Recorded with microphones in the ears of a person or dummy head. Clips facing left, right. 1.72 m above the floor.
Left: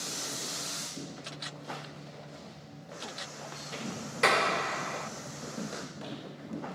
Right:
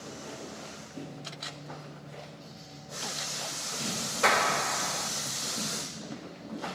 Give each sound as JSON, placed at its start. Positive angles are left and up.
{"t": 1.2, "sound": "a camera shutter", "side_deg": 25, "distance_m": 1.1}
{"t": 4.2, "sound": "a clap", "side_deg": 30, "distance_m": 1.0}